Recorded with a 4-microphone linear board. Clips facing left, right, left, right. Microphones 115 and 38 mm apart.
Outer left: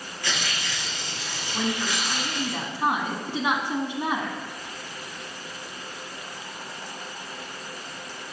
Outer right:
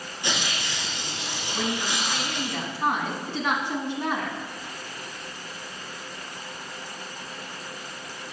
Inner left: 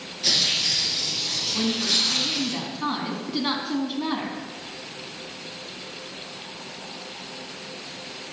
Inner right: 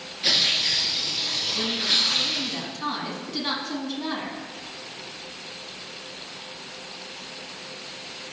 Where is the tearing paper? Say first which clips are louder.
Outer right 1 dB, inner right 1 dB; 20° right (ahead or behind), 2 m.